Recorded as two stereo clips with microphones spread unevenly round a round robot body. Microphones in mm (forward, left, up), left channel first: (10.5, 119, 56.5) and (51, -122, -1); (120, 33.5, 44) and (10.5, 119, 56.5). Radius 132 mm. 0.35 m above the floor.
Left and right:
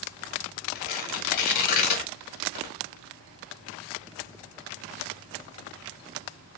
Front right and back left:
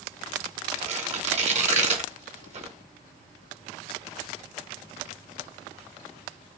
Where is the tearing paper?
105° left, 1.0 m.